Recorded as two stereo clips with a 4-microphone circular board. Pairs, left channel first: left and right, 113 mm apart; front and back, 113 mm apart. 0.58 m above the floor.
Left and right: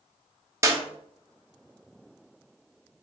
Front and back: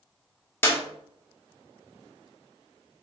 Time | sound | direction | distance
0.6 | a clap | 50° right | 0.8 m